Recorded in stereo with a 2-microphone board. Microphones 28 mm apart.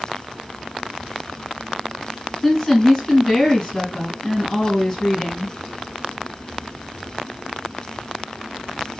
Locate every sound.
2.4 s a woman speaking: 5° left (ahead or behind), 2.5 m